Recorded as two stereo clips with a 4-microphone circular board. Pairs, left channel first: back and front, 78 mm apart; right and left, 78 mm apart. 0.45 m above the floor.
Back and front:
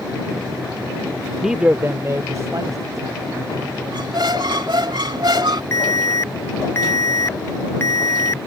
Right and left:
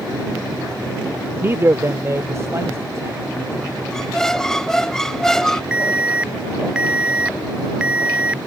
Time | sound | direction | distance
1.4 | a man speaking | 90° left | ?
3.9 | a squeak | 5° right | ?
5.7 | an alarm | 160° left | ?